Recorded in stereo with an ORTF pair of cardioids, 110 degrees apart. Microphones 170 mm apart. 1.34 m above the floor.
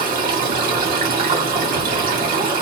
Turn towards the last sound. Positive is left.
turn(degrees=-55)